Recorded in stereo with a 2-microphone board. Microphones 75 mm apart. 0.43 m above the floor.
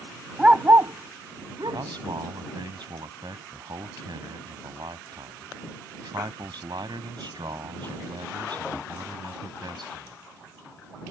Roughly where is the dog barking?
Centre.